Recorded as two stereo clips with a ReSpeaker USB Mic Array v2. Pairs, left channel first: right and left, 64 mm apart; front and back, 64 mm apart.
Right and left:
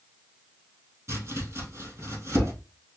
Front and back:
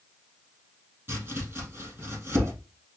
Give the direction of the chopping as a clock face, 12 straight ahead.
8 o'clock.